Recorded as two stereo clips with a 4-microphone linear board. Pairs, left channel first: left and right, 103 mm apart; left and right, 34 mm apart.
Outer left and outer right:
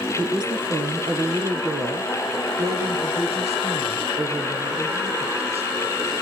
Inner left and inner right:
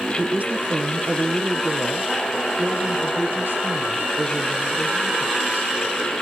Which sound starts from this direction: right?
A woman speaking, at 0.2 s.